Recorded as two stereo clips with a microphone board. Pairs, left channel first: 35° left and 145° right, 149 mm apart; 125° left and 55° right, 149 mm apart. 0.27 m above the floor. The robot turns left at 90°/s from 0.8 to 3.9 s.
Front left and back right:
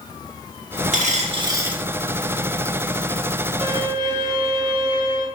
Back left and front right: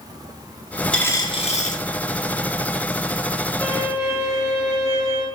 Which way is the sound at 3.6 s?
165° right.